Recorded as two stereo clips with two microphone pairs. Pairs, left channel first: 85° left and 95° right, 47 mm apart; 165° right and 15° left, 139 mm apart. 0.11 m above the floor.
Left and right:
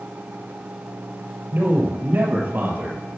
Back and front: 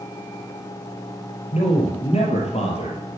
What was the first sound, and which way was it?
A man speaking, 130° right.